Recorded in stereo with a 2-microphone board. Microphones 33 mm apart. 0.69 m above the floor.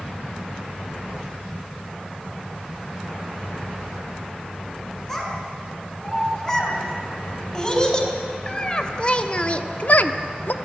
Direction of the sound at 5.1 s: 15° left (ahead or behind).